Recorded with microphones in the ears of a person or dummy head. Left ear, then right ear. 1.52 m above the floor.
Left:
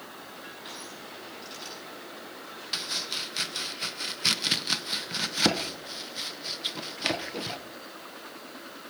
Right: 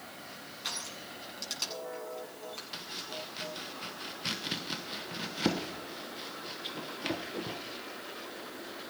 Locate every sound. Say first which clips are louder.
0.6 s crushing: right 7 dB; 55° right (ahead or behind), 8.5 m
2.7 s chopping: left 12 dB; 35° left (ahead or behind), 1.1 m